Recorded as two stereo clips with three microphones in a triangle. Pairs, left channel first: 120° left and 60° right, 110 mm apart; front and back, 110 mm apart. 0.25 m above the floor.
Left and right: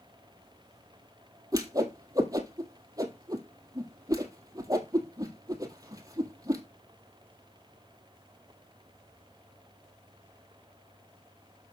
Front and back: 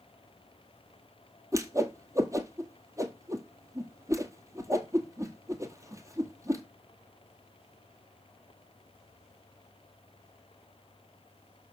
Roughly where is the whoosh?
Behind right.